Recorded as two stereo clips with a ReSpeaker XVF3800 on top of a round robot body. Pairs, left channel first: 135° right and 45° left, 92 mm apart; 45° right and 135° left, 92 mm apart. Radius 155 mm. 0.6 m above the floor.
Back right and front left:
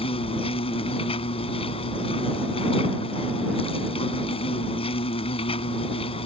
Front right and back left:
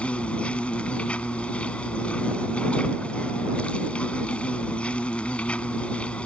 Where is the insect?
125° right.